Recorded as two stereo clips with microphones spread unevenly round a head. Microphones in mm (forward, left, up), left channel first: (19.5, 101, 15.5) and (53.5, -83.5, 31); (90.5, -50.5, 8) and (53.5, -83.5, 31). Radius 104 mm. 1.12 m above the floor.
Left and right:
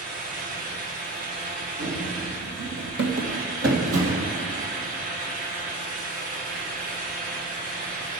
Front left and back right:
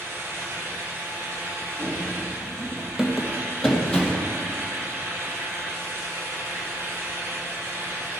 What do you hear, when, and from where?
0.0 s a fan: 90° right, 1.5 m
1.8 s running footsteps: 115° right, 2.5 m; by 4.3 s 35° right, 2.5 m